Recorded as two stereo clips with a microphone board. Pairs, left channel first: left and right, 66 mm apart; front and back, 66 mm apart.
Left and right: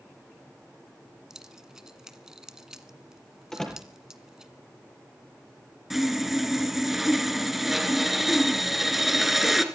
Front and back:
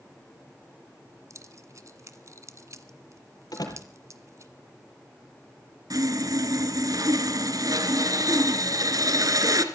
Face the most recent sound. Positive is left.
turn(degrees=-175)